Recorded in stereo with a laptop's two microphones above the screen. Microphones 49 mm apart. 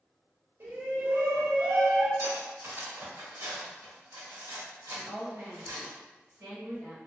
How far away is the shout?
About 1.6 m.